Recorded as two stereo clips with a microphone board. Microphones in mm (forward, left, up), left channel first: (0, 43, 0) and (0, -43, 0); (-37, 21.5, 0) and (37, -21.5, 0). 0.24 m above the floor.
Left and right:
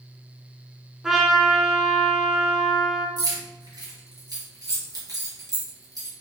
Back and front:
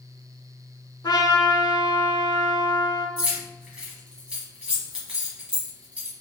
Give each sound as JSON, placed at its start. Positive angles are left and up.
{"t": 1.0, "sound": "a trumpet", "azimuth_deg": -175, "distance_m": 0.7}
{"t": 3.2, "sound": "keys jangling", "azimuth_deg": -100, "distance_m": 1.3}